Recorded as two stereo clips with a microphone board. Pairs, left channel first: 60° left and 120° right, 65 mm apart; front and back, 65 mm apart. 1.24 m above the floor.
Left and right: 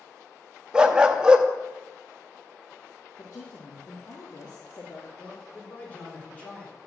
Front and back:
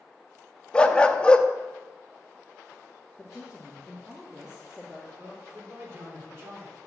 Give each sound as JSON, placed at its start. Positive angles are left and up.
{"t": 0.7, "sound": "a dog barking", "azimuth_deg": -60, "distance_m": 0.6}
{"t": 3.2, "sound": "a woman speaking", "azimuth_deg": 95, "distance_m": 1.9}
{"t": 5.2, "sound": "a man speaking", "azimuth_deg": 125, "distance_m": 3.5}